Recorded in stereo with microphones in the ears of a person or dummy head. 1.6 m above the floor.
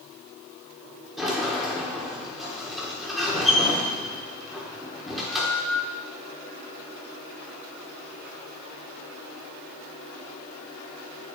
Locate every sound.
1.2 s a sliding door: centre (ahead or behind), 1.6 m